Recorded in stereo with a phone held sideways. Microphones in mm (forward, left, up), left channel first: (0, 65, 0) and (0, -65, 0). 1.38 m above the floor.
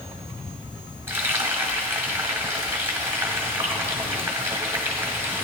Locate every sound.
1.1 s frying: 20° right (ahead or behind), 1.4 m